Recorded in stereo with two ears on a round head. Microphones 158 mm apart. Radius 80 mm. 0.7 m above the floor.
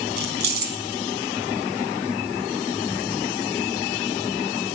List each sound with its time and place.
0.2 s keys jangling: 65° right (ahead or behind), 5 m